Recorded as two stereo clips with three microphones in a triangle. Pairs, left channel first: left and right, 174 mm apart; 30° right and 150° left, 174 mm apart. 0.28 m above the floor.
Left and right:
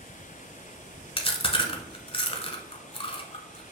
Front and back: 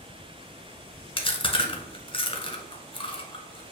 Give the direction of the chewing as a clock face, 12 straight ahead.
11 o'clock.